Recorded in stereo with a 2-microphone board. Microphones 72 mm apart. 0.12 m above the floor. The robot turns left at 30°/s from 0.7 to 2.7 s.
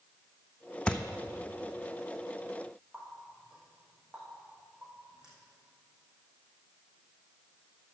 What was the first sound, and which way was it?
A thud, 15° left (ahead or behind).